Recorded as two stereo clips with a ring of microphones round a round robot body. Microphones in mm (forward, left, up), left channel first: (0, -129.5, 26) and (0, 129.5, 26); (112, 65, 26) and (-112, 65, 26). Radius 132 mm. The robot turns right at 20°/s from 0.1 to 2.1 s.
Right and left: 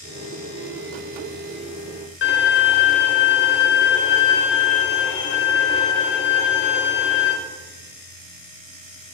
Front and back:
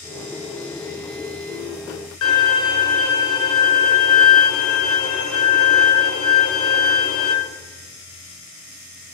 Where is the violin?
40° right, 0.9 m.